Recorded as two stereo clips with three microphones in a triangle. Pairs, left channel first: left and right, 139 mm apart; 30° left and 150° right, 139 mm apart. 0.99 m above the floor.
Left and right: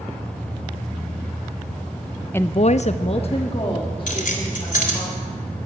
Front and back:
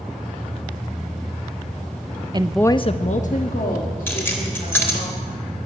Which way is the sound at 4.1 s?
105° left.